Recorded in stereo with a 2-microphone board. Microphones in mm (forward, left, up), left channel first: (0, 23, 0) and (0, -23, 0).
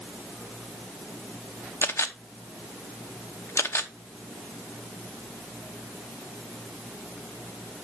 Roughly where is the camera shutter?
Left.